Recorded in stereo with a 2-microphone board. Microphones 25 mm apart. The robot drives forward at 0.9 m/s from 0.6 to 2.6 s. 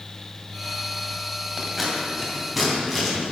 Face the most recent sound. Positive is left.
turn(degrees=-5)  # may be behind; listen again after turning